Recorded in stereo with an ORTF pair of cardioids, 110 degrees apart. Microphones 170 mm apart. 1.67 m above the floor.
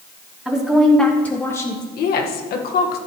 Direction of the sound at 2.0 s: 65° left.